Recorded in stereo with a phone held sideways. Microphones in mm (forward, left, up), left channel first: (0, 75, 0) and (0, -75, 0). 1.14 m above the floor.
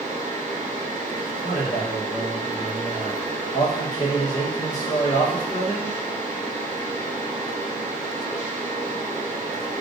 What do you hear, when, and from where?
0.0 s a fan: 55° right (ahead or behind), 1.5 m
1.4 s a man speaking: 55° left (ahead or behind), 1.4 m